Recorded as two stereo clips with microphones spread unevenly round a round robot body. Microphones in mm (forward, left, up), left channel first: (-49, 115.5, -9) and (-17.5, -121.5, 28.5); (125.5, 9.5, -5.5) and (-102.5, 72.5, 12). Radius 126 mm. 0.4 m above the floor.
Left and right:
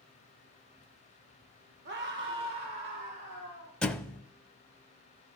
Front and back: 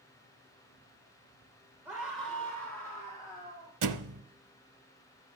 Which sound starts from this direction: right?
A scream, at 1.9 s.